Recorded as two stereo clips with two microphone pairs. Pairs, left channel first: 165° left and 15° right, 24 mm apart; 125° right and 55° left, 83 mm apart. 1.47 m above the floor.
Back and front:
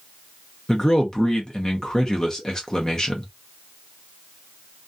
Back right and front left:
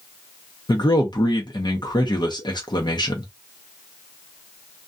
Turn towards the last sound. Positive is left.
turn(degrees=-135)